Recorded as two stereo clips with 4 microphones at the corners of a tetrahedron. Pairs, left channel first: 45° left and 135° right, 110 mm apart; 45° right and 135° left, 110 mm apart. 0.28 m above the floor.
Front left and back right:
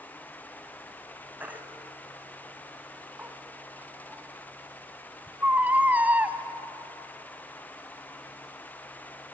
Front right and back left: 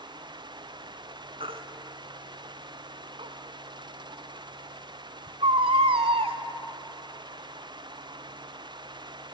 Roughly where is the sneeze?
I don't hear a sneeze.